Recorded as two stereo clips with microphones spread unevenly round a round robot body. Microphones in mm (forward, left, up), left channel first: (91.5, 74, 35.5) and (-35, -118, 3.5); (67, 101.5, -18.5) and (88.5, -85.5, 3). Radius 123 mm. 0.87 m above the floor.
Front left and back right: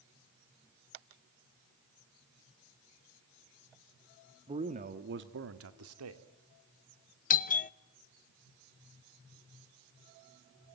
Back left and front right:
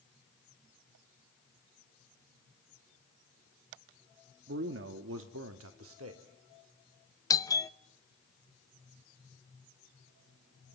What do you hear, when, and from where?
4.5 s a man speaking: 60° right, 1.5 m; by 6.2 s 120° right, 2 m
7.3 s a doorbell: 70° left, 0.9 m